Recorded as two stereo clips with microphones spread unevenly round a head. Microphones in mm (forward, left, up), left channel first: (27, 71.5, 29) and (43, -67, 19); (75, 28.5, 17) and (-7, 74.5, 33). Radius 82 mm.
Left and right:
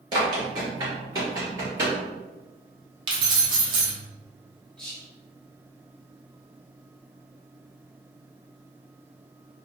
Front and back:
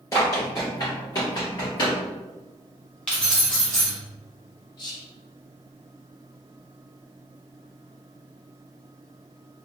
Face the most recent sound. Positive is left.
turn(degrees=10)